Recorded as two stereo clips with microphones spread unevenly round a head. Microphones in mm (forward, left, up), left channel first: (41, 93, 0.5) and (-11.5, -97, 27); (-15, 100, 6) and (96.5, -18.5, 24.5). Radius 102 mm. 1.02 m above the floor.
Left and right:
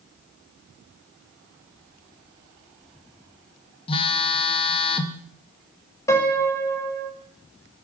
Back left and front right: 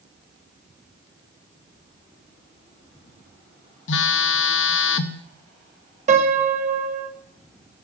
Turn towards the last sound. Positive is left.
turn(degrees=0)